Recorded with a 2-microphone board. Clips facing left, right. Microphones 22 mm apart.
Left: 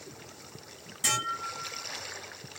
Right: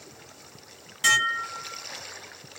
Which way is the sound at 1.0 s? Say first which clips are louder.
Right 8 dB; 40° right (ahead or behind).